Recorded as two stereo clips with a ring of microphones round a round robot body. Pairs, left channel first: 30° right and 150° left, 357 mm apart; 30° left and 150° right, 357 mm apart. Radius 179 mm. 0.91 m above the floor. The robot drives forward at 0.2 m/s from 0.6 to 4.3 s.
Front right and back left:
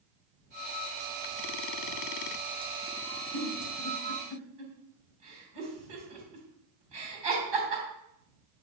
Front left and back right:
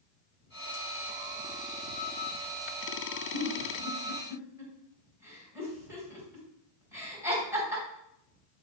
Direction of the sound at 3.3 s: 125° left.